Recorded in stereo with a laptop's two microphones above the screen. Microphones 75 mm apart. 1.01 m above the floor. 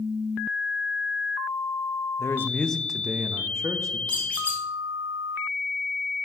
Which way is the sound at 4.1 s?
20° left (ahead or behind).